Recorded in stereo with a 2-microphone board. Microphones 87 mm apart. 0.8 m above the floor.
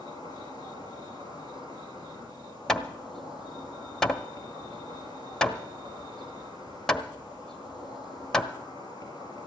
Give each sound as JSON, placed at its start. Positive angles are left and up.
{"t": 0.0, "sound": "an insect", "side_deg": -70, "distance_m": 4.5}
{"t": 2.7, "sound": "hammering", "side_deg": 5, "distance_m": 0.8}